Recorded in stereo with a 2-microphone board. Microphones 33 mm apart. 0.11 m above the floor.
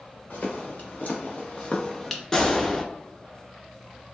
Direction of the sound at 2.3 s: 20° left (ahead or behind).